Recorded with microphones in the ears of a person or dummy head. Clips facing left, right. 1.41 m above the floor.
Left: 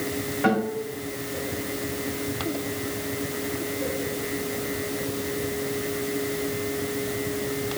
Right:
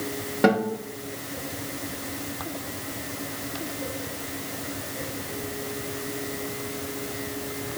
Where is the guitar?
55° right (ahead or behind), 1.2 m.